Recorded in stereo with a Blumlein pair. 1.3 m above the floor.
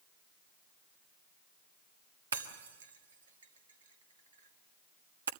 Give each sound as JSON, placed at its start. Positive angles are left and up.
{"t": 2.3, "sound": "breaking glass", "azimuth_deg": -65, "distance_m": 1.3}